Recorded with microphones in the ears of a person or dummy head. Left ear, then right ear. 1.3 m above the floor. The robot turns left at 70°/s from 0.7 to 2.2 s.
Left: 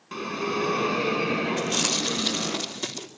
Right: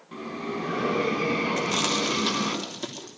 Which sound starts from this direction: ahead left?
A bell, at 0.1 s.